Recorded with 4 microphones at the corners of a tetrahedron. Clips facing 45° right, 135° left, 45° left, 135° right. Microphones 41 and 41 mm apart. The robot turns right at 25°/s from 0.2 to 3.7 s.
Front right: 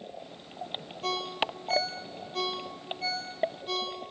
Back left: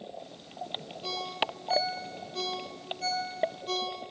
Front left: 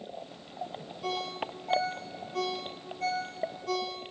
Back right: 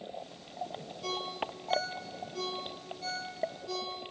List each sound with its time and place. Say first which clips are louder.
1.0 s a ringtone: front right 2 dB, front left 2 dB; 30° right, 4 m; by 4.0 s 35° left, 4 m